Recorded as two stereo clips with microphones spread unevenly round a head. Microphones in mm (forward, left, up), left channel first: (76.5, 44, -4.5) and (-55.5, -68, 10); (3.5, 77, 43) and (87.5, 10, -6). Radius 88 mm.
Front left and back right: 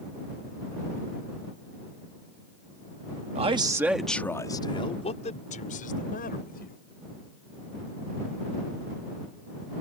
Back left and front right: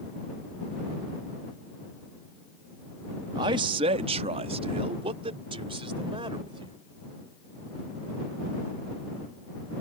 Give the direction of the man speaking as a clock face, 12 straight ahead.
3 o'clock.